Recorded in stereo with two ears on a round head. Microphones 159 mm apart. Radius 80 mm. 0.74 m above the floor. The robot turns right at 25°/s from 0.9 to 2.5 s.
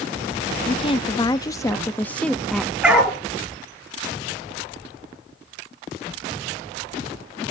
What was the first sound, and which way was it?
A woman speaking, 135° left.